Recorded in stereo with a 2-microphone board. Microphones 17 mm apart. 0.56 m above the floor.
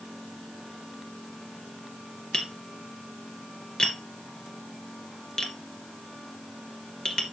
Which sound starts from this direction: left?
Tapping, at 2.3 s.